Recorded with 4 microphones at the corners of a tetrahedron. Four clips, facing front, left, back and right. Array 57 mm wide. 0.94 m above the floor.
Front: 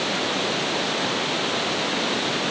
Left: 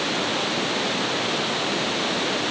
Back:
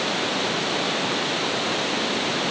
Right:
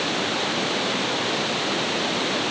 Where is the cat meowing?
I don't hear a cat meowing.